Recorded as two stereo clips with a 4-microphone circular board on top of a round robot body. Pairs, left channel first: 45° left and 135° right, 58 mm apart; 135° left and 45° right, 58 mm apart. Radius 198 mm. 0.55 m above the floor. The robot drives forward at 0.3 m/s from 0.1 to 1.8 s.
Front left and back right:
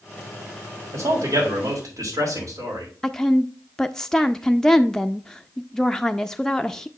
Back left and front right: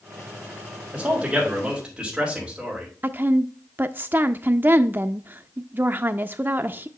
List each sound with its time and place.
0.9 s a man speaking: 115° right, 3.5 m; by 2.9 s 120° right, 3.5 m
3.0 s a woman speaking: 30° right, 0.6 m